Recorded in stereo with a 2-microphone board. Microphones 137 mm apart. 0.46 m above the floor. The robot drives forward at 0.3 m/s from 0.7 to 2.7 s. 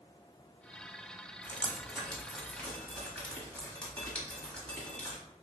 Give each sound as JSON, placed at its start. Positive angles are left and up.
{"t": 1.4, "sound": "dripping", "side_deg": 10, "distance_m": 0.9}